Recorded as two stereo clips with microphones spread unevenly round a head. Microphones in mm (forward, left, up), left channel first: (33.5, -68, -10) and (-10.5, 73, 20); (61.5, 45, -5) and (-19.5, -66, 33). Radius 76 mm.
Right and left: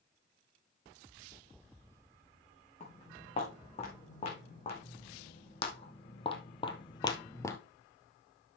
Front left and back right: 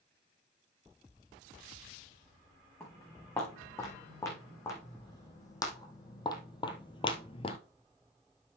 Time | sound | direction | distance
2.8 | footsteps | 20° right | 7 m